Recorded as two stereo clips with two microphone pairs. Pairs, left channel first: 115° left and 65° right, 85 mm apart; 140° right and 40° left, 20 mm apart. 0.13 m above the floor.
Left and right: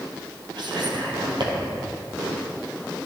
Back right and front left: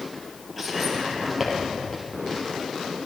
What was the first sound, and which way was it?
Whispering, 50° right.